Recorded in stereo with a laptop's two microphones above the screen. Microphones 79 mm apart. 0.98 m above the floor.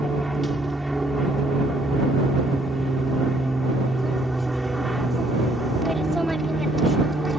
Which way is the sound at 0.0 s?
10° left (ahead or behind).